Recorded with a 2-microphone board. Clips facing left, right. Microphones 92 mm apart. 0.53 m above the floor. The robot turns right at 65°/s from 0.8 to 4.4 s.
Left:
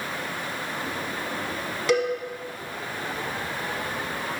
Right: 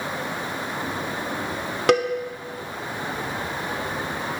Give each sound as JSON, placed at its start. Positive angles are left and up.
{"t": 1.9, "sound": "a cowbell", "side_deg": -60, "distance_m": 0.8}